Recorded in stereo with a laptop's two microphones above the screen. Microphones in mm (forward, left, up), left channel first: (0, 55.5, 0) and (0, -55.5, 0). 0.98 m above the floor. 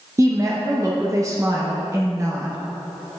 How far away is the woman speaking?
About 0.7 m.